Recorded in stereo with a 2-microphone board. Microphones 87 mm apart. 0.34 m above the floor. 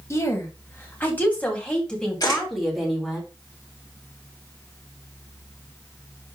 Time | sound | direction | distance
0.1 | a woman speaking | 30° left (ahead or behind) | 2.5 m
2.2 | a camera shutter | 45° left (ahead or behind) | 5.5 m